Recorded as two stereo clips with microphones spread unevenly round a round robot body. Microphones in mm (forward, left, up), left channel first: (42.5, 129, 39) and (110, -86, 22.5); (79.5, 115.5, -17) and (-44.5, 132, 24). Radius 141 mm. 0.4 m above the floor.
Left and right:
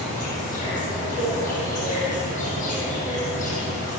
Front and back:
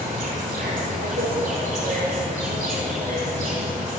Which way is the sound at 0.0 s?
170° left.